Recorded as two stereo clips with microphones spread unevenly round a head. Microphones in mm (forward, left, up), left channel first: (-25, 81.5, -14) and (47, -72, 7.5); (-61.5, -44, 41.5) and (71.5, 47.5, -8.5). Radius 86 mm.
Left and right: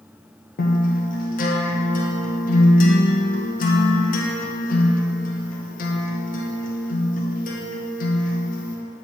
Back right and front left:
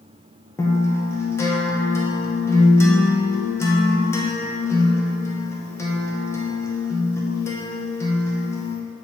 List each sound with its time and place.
0.6 s a guitar: 130° left, 0.9 m